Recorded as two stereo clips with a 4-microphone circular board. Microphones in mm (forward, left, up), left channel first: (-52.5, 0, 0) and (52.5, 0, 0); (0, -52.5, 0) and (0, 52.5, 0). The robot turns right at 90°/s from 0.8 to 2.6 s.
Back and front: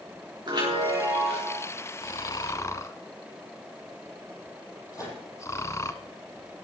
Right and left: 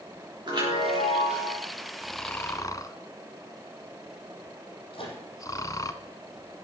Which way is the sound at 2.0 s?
175° left.